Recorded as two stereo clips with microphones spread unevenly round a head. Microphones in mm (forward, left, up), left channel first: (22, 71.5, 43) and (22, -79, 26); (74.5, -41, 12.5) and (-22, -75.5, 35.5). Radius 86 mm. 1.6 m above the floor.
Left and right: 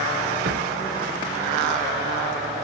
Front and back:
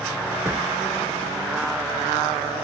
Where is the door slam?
95° right.